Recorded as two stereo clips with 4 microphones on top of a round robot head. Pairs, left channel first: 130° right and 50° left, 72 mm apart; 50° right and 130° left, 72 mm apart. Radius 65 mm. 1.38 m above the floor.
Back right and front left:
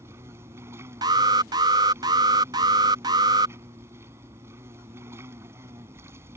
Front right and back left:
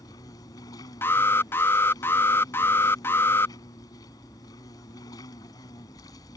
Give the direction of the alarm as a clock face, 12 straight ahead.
12 o'clock.